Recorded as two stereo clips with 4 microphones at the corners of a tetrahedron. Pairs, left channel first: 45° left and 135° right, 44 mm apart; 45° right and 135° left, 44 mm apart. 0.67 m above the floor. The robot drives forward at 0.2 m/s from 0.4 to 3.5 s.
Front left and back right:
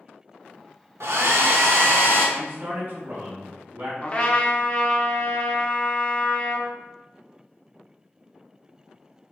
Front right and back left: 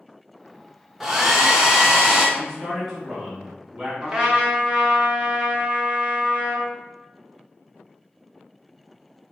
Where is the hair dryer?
140° right, 0.6 m; by 2.3 s 150° right, 0.8 m.